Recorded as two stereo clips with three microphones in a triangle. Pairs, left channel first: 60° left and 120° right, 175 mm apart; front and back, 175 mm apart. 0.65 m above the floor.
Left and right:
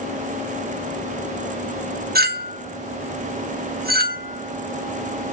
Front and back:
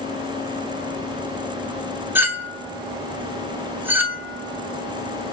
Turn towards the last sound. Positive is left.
turn(degrees=-105)